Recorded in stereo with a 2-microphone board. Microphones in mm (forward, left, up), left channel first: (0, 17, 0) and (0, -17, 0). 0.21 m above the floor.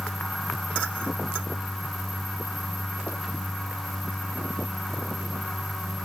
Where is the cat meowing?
I don't hear a cat meowing.